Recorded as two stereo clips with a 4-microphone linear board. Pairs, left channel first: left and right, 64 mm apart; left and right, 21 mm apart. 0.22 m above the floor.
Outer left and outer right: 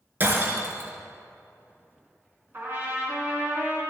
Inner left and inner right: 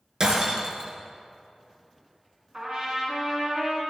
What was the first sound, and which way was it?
Breaking glass, 35° right (ahead or behind).